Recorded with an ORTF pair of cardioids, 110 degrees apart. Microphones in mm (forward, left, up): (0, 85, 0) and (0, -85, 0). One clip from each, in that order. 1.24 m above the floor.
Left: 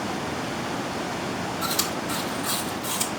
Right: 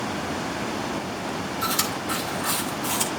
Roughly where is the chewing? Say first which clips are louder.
Right 2 dB; ahead.